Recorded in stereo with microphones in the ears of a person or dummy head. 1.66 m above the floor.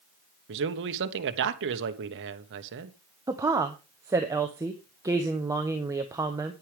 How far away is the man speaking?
About 1.2 m.